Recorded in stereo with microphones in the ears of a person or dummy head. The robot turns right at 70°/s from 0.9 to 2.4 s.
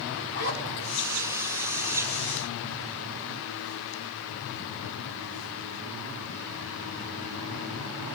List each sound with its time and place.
0.3 s a zipper: 55° left (ahead or behind), 6 m